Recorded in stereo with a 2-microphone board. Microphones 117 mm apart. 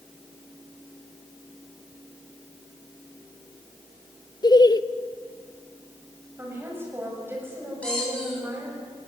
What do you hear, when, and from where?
4.4 s laughter: 35° left (ahead or behind), 0.6 m
6.4 s a woman speaking: 20° right (ahead or behind), 7.5 m
7.8 s a squeak: 10° left (ahead or behind), 9.5 m